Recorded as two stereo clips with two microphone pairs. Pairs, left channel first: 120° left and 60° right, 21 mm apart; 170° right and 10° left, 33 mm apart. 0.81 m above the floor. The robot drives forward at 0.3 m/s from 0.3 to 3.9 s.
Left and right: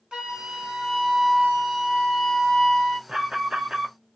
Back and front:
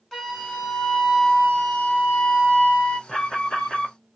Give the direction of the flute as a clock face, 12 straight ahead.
3 o'clock.